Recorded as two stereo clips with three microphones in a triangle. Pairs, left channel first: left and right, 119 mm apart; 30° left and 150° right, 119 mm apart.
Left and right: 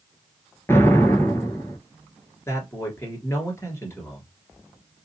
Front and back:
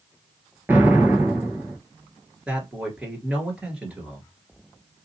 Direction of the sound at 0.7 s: 150° left.